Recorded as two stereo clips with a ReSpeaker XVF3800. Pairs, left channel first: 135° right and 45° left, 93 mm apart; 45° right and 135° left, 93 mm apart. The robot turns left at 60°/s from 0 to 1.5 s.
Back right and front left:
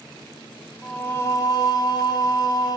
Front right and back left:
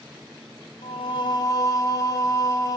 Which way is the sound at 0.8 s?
50° right.